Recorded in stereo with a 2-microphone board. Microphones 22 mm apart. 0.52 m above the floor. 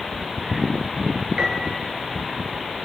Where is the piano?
50° right (ahead or behind), 5 m.